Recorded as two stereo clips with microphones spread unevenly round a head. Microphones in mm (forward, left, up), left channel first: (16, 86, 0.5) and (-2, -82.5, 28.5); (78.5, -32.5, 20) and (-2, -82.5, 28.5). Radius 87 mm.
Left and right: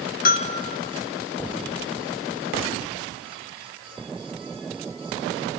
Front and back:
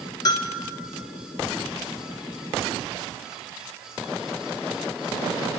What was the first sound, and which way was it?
A bell, 75° left.